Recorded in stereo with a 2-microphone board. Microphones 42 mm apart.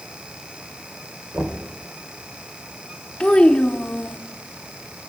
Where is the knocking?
55° right (ahead or behind), 2.5 m.